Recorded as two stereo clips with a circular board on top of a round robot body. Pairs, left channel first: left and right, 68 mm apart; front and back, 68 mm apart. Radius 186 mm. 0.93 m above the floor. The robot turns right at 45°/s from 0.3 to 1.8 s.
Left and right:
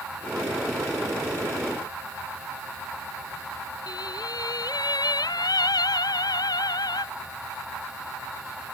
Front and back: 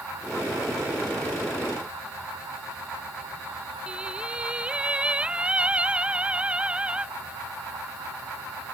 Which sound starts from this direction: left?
Singing, at 3.9 s.